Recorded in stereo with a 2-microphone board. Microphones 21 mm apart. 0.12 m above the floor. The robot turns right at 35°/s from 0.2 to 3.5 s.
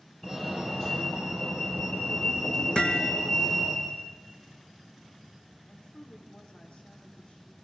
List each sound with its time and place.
0.2 s a fire alarm: 5° left, 5.5 m; by 3.8 s 120° left, 5.5 m
2.8 s hammering: 50° left (ahead or behind), 1.9 m; by 3.1 s 65° left (ahead or behind), 1.9 m
5.7 s a woman speaking: 60° left (ahead or behind), 6 m